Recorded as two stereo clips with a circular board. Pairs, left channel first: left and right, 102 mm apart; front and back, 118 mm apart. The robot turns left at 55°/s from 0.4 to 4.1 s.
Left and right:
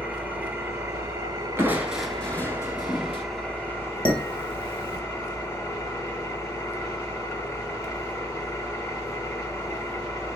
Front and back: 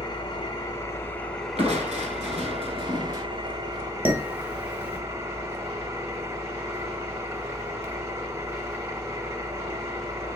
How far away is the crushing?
About 1.0 m.